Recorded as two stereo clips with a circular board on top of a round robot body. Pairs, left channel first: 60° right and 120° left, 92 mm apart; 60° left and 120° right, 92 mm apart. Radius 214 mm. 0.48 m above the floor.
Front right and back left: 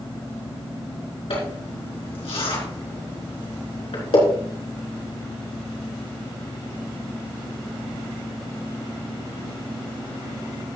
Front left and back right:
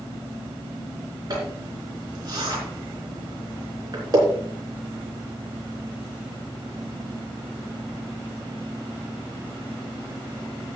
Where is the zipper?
75° right, 4 m.